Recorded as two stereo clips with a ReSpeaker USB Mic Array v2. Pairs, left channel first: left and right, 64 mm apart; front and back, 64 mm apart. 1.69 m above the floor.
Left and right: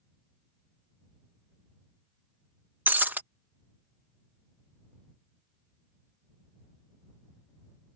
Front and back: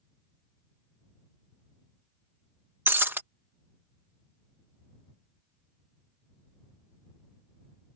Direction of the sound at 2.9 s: 140° right.